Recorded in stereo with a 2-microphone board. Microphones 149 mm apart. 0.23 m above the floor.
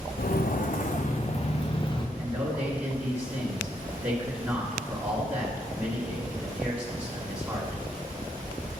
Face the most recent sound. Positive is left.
turn(degrees=-15)  # may be behind; listen again after turning